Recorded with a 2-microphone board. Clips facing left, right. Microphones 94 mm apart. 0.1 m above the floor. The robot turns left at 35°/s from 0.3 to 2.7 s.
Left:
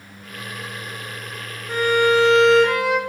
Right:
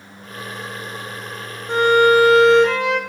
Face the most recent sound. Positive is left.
turn(degrees=175)